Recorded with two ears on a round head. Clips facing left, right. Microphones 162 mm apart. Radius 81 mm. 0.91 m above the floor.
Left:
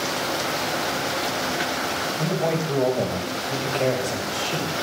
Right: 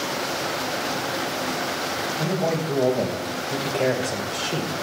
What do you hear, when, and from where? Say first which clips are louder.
2.2 s a man speaking: even; centre (ahead or behind), 5 m; by 4.7 s 20° right (ahead or behind), 3 m